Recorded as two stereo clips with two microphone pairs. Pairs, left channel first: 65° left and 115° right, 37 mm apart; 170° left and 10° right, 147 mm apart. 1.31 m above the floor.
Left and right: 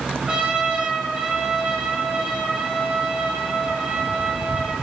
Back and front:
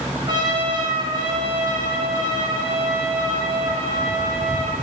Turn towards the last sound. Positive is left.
turn(degrees=-65)